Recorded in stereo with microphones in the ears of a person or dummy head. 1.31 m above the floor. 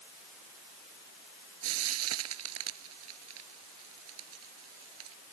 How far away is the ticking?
No ticking in this recording.